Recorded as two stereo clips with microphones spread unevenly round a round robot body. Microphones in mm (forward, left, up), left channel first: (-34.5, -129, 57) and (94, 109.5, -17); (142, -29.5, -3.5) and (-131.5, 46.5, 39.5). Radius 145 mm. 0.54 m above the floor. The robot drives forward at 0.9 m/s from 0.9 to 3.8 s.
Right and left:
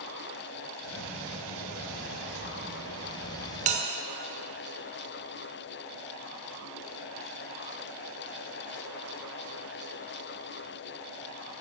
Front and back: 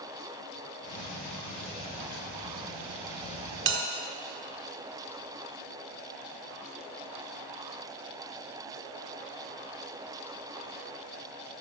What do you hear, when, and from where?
3.7 s a bell: 115° left, 1.2 m; by 3.8 s 120° left, 1.2 m